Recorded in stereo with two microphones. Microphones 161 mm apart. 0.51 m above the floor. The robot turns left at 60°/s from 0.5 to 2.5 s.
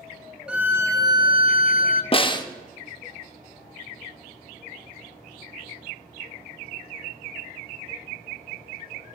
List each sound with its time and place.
0.5 s a violin: 10° right, 0.6 m; by 2.0 s 100° right, 0.6 m
2.1 s a snare drum: 35° left (ahead or behind), 0.5 m; by 2.5 s 25° left (ahead or behind), 0.5 m